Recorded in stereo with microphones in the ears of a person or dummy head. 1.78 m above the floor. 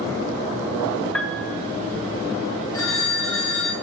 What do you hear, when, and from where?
1.1 s a piano: 5° left (ahead or behind), 0.6 m
2.7 s a phone ringing: 20° left (ahead or behind), 1.9 m